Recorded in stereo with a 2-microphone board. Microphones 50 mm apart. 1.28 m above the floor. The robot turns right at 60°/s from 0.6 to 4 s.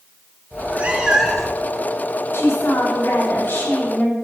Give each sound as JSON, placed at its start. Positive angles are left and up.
{"t": 0.5, "sound": "a cat meowing", "azimuth_deg": -45, "distance_m": 0.8}
{"t": 2.3, "sound": "a woman speaking", "azimuth_deg": 50, "distance_m": 3.0}